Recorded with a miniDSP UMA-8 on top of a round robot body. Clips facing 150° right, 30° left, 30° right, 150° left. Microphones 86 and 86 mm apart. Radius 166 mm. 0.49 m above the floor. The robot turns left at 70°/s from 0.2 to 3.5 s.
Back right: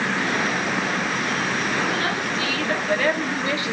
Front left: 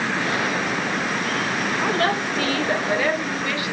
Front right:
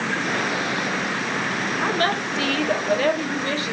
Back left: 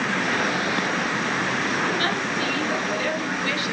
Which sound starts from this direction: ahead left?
A woman speaking, at 1.8 s.